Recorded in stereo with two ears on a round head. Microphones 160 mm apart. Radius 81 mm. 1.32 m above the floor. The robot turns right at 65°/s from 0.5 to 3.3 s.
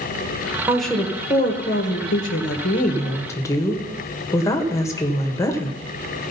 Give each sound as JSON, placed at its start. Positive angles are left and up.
{"t": 0.7, "sound": "a woman speaking", "azimuth_deg": -10, "distance_m": 1.5}